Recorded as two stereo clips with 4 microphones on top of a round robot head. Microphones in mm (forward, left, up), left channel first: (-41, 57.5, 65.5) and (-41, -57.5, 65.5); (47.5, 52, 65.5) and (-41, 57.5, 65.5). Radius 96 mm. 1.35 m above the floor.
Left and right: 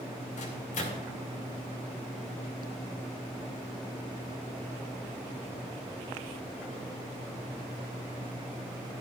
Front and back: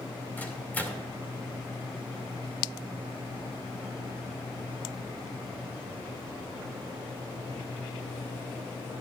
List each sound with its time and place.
0.4 s a microwave: 65° left, 2.5 m